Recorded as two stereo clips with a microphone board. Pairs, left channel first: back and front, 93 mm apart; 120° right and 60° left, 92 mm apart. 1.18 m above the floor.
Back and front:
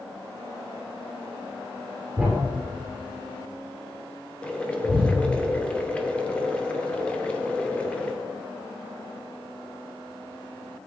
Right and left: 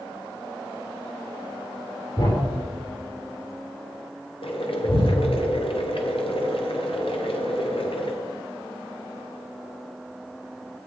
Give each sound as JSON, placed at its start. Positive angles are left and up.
{"t": 2.2, "sound": "a thud", "azimuth_deg": -90, "distance_m": 5.5}
{"t": 4.4, "sound": "boiling", "azimuth_deg": -100, "distance_m": 1.7}